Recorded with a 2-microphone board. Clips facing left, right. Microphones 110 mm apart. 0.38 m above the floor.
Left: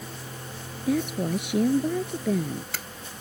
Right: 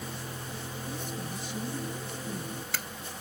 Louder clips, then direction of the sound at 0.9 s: Left 15 dB; 75° left (ahead or behind).